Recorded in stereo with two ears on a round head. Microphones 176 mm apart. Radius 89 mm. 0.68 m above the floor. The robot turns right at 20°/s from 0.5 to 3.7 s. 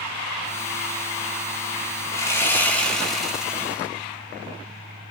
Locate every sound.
2.1 s sawing: 155° left, 1.1 m; by 3.9 s 170° right, 1.1 m